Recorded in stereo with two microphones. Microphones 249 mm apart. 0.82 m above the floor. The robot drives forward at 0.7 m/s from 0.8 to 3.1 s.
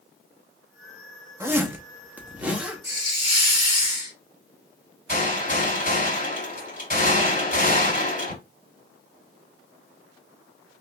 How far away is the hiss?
About 2.5 m.